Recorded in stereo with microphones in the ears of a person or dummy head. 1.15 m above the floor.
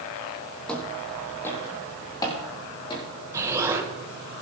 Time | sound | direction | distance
0.7 | footsteps | 5° left (ahead or behind) | 3 m
3.3 | an explosion | 20° right (ahead or behind) | 1.4 m